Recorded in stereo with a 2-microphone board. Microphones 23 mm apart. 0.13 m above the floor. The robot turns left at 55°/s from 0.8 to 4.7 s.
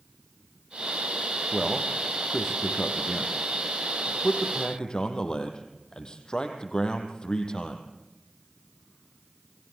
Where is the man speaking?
30° right (ahead or behind), 4 m; by 7.8 s 35° left (ahead or behind), 4 m.